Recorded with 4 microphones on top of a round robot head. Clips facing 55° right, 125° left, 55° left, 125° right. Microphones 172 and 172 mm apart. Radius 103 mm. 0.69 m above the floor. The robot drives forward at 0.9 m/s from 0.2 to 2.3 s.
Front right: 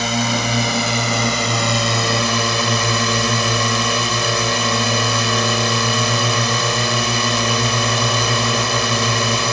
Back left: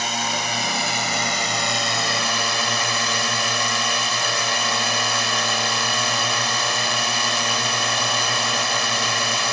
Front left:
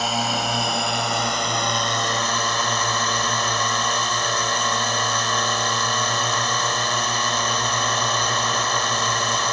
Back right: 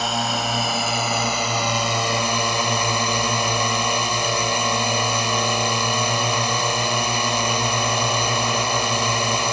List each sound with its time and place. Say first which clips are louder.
0.0 s a drone: front right 7 dB, even; 35° right; by 9.5 s 45° right